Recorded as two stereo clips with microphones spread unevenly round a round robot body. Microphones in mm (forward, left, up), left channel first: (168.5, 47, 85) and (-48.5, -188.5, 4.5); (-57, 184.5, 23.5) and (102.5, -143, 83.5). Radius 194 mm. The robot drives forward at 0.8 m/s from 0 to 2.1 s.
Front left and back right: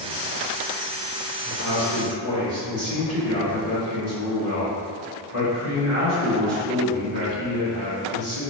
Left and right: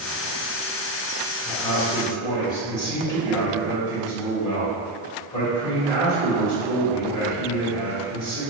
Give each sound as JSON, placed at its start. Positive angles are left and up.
{"t": 1.4, "sound": "a man speaking", "azimuth_deg": -170, "distance_m": 1.2}